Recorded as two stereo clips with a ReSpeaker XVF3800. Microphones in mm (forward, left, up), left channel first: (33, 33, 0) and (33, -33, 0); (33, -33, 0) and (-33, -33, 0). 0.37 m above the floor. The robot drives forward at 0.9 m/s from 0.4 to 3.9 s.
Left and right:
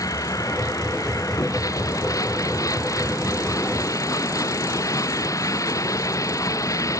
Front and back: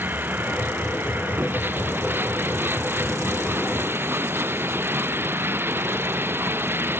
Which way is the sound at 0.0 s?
120° left.